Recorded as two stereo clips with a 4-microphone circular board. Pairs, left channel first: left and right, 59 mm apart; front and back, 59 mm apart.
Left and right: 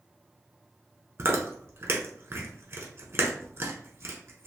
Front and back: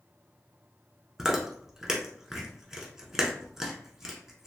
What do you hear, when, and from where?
1.2 s chewing: 105° right, 0.8 m